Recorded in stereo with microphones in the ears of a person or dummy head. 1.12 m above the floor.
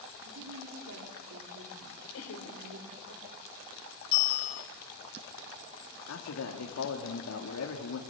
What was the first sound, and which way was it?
A woman speaking, 75° right (ahead or behind).